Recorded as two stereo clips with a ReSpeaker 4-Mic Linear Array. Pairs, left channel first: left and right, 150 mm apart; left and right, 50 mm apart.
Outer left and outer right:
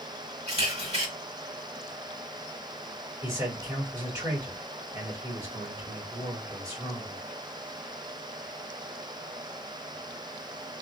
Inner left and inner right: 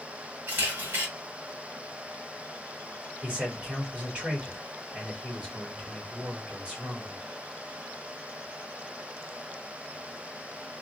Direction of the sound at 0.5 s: 45° right (ahead or behind).